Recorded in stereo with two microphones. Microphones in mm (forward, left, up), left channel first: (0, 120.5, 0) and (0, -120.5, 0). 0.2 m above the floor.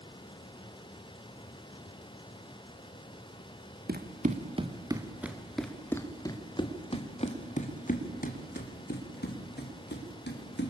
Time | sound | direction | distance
3.9 | running footsteps | 40° right (ahead or behind) | 1.6 m